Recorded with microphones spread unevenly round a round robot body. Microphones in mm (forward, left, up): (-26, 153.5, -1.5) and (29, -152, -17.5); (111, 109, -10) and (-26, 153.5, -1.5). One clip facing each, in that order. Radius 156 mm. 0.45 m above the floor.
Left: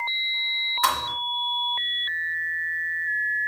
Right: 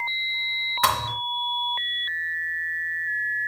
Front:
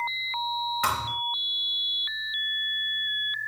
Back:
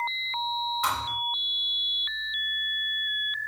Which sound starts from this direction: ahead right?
A thud, at 0.8 s.